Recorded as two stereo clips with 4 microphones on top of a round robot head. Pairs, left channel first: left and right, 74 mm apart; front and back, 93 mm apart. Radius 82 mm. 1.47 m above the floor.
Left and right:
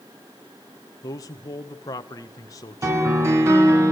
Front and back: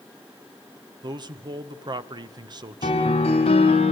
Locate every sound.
1.0 s a man speaking: 140° left, 1.8 m
2.8 s a piano: 40° right, 3.5 m